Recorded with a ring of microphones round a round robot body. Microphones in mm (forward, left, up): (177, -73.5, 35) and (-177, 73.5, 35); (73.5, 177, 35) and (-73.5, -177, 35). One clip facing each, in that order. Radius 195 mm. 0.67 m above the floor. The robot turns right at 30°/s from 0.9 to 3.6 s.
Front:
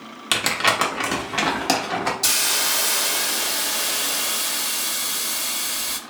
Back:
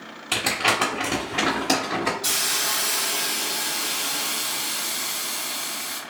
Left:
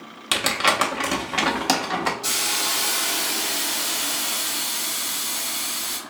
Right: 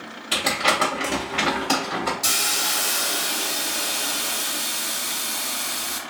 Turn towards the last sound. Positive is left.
turn(degrees=0)